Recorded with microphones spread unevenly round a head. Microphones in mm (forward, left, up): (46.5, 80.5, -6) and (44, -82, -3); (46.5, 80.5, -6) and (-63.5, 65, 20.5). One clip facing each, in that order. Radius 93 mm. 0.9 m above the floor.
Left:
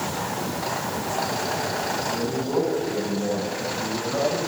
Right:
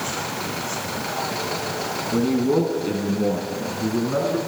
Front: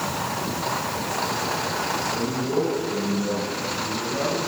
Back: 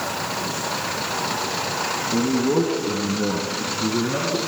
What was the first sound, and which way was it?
A man speaking, 135° right.